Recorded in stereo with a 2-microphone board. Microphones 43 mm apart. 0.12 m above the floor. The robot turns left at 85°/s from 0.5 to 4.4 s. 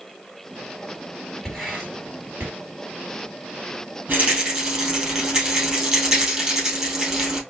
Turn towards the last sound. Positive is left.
turn(degrees=-15)  # may be behind; listen again after turning